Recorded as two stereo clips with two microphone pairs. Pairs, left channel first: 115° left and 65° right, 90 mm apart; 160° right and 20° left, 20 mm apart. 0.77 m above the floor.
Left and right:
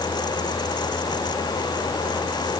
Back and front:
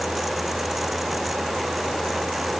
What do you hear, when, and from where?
Only background noise.